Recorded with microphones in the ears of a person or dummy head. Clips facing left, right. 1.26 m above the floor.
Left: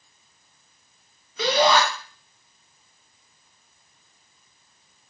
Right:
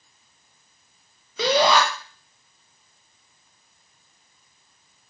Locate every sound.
1.4 s a shout: 65° right (ahead or behind), 0.6 m